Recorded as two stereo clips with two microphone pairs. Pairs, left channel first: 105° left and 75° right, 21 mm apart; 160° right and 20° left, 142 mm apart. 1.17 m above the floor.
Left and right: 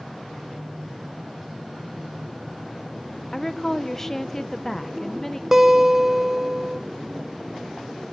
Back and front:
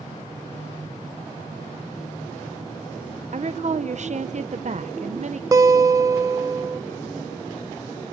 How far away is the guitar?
About 1.1 m.